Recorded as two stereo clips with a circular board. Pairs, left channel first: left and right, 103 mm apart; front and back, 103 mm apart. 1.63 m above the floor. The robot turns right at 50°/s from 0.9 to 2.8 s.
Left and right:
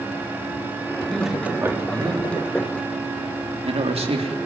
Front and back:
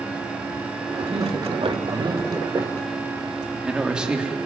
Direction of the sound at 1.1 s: 175° left.